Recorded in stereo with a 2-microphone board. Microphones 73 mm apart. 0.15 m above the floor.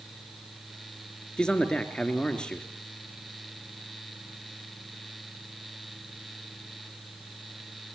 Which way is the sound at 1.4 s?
10° left (ahead or behind).